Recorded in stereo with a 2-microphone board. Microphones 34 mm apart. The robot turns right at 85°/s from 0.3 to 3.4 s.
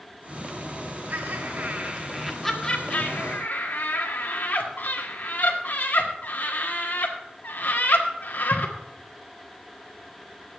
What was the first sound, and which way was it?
Laughter, 55° right (ahead or behind).